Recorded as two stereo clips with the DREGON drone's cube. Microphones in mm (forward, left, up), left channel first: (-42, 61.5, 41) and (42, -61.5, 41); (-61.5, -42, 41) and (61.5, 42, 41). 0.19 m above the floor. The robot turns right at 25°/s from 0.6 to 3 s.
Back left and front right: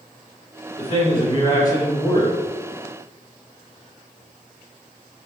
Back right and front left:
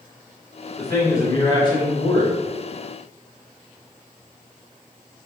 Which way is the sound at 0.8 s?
150° left.